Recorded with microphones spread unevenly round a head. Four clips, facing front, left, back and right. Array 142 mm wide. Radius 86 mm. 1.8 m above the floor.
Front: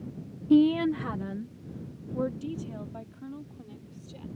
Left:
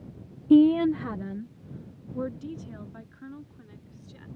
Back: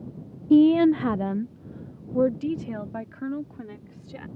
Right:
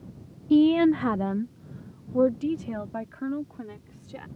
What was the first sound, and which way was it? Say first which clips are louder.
A woman speaking: left 1 dB, back 5 dB; 140° left.